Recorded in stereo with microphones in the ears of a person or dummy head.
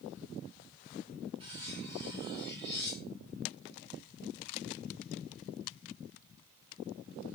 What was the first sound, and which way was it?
Cutlery clinking, 30° right (ahead or behind).